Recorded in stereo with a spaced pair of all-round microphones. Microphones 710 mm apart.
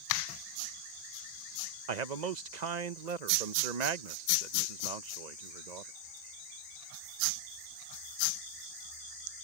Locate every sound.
1.9 s a man speaking: 70° right (ahead or behind)